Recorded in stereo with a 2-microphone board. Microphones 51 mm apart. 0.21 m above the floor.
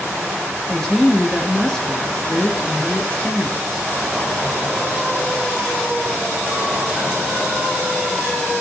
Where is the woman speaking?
15° left (ahead or behind), 3 m.